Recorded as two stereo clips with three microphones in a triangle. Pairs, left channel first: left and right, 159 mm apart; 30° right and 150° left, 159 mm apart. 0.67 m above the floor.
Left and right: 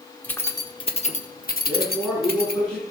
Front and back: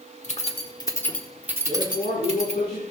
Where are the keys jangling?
10° left, 1.3 m; by 2.6 s 110° left, 1.6 m.